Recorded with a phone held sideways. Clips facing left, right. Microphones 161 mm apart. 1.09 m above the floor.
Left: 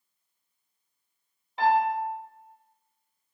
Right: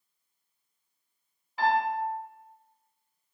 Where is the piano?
25° left (ahead or behind), 1.5 m.